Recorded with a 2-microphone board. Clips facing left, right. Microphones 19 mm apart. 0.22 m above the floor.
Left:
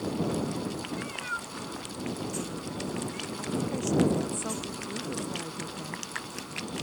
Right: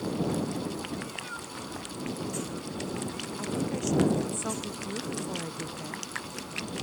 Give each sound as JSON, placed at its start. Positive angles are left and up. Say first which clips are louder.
{"t": 0.9, "sound": "a cat meowing", "louder": "left 3 dB", "side_deg": 25}
{"t": 3.4, "sound": "a woman speaking", "louder": "even", "side_deg": -10}